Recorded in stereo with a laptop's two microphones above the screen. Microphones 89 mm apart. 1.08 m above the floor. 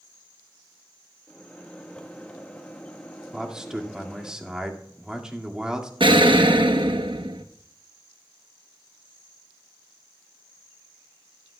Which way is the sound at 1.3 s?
15° left (ahead or behind).